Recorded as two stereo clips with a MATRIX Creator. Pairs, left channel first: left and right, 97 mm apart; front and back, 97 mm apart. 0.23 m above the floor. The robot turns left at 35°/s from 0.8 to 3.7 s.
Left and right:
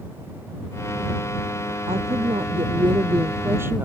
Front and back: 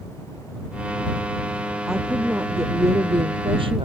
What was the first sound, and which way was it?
A woman speaking, 95° right.